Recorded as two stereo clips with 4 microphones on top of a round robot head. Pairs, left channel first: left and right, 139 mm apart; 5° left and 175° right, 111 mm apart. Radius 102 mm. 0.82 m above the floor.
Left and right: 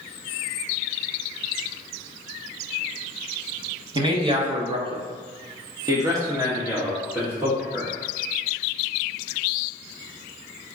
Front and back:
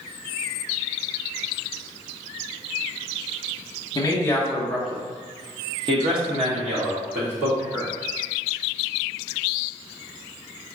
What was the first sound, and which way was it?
A man speaking, 45° right.